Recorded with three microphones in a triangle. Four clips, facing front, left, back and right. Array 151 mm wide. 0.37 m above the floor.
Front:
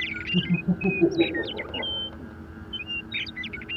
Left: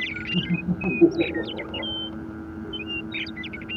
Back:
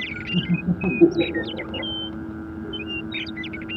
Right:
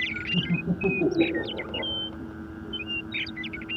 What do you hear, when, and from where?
0.3 s laughter: 155° right, 10 m; by 1.9 s 165° right, 10 m